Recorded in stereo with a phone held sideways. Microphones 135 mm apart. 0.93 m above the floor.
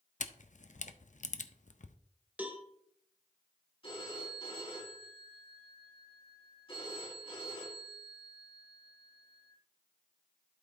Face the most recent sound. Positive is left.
turn(degrees=40)  # may be behind; listen again after turning